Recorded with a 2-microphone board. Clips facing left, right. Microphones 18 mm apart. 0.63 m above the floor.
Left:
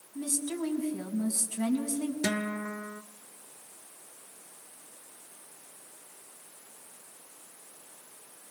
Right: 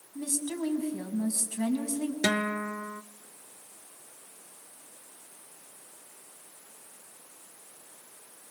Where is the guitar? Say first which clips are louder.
Right 3 dB; 40° right (ahead or behind), 0.8 m.